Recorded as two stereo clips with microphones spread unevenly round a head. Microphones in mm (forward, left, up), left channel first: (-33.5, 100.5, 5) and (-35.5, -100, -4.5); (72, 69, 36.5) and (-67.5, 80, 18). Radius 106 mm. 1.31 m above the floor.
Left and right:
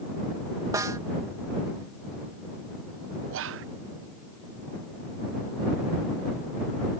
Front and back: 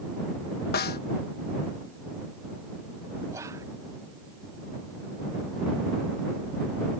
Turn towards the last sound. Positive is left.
turn(degrees=-110)